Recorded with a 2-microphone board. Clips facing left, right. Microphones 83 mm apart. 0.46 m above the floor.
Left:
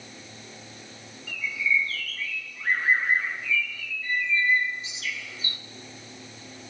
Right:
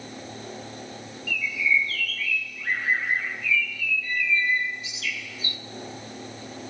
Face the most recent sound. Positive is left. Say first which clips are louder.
# right 2 dB
turn(degrees=35)  # may be behind; listen again after turning